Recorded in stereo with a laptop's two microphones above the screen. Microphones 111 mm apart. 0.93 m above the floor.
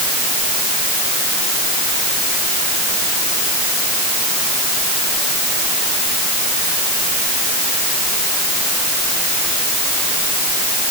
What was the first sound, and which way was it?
Only background noise.